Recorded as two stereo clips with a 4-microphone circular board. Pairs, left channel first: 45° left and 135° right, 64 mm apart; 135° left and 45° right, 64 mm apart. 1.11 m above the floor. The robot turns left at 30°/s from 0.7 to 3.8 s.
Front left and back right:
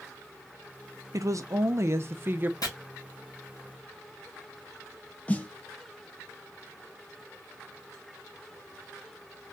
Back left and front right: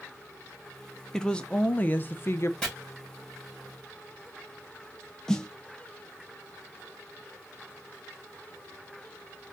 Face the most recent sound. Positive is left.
turn(degrees=65)